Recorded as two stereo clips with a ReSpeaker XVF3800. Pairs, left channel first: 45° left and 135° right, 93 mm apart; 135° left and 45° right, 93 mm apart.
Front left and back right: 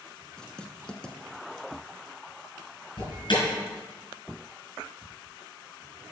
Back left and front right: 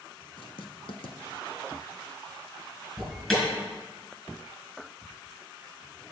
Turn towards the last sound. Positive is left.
turn(degrees=50)